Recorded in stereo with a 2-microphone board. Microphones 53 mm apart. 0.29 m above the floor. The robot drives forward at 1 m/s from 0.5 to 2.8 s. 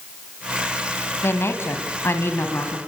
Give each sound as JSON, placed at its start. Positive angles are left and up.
{"t": 1.2, "sound": "a woman speaking", "side_deg": 55, "distance_m": 2.0}